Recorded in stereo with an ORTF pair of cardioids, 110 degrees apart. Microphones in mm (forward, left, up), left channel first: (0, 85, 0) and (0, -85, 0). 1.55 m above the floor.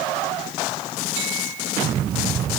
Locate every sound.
Only background noise.